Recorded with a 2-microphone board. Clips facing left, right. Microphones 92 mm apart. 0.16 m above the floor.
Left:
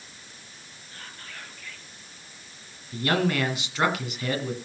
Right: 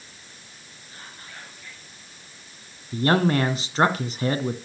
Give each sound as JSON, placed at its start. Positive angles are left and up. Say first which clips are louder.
{"t": 0.9, "sound": "whispering", "louder": "even", "side_deg": -20, "distance_m": 3.0}
{"t": 2.9, "sound": "a man speaking", "louder": "right 4 dB", "side_deg": -35, "distance_m": 1.6}